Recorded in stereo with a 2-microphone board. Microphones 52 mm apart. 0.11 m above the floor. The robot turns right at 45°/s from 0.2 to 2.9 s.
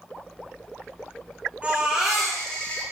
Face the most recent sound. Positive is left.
turn(degrees=30)